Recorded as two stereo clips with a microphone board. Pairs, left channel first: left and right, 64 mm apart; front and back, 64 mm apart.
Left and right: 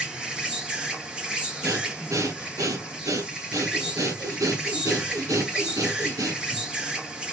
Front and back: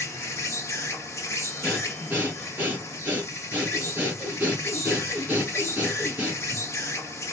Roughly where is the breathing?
Behind right.